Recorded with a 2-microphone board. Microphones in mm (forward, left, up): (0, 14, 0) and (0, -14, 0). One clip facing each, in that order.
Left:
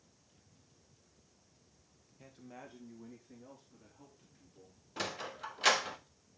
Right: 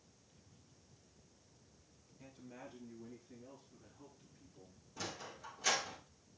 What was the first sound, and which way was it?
A man speaking, 30° left (ahead or behind).